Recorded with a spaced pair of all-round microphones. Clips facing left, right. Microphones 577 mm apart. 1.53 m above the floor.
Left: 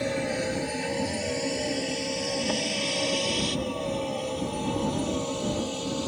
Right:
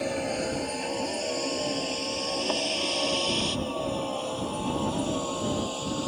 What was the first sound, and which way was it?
A vehicle, 45° left (ahead or behind).